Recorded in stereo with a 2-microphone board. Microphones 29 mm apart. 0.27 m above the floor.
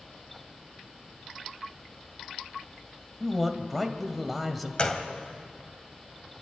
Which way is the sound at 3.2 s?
Centre (ahead or behind).